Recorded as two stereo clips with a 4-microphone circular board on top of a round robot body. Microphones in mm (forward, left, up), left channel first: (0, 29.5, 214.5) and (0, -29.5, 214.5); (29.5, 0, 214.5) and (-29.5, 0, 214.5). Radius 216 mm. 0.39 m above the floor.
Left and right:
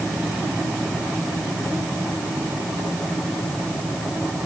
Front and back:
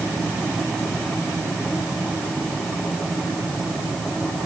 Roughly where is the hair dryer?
No hair dryer in this recording.